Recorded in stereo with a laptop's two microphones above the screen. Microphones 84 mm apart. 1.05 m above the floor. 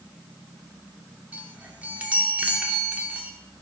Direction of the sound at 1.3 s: 20° right (ahead or behind).